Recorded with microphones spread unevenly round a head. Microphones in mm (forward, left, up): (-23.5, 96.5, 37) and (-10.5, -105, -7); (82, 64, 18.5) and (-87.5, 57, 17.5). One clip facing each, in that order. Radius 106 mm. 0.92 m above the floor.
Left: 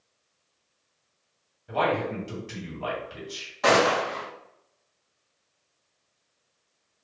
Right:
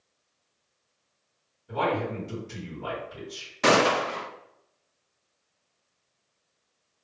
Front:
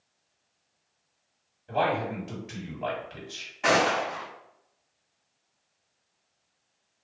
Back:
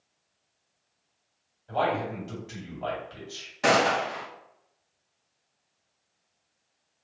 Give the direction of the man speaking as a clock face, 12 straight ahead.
10 o'clock.